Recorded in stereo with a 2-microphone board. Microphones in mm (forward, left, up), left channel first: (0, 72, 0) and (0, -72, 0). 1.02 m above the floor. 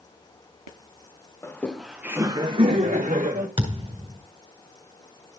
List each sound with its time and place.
1.4 s laughter: 15° left (ahead or behind), 0.9 m; by 3.5 s 60° right (ahead or behind), 1.3 m
3.6 s a thud: 35° right (ahead or behind), 2 m